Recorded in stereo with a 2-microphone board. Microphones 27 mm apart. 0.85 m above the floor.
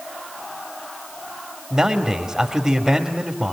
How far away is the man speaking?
About 2 m.